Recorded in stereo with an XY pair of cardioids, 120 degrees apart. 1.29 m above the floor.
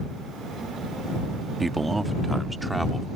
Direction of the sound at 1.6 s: 10° right.